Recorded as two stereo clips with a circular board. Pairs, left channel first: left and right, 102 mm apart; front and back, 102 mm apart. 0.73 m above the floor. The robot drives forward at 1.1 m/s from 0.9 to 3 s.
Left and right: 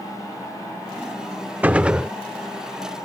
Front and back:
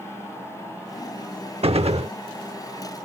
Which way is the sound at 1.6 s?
165° right.